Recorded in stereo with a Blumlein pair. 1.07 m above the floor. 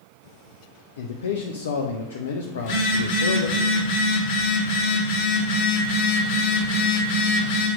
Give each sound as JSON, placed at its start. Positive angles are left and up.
{"t": 1.0, "sound": "a man speaking", "azimuth_deg": 65, "distance_m": 0.6}
{"t": 2.6, "sound": "a phone buzzing", "azimuth_deg": 55, "distance_m": 1.8}